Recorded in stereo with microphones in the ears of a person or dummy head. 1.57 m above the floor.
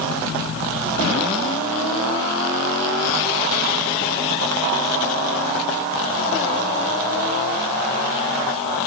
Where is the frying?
I don't hear frying.